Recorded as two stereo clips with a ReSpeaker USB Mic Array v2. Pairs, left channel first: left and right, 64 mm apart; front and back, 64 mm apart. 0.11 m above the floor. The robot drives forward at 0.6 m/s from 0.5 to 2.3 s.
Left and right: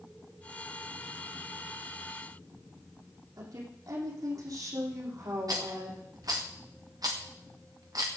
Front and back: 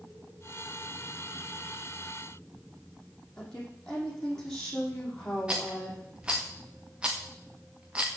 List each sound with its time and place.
3.4 s a woman speaking: 80° right, 5.5 m
5.5 s a rattle: 105° right, 2 m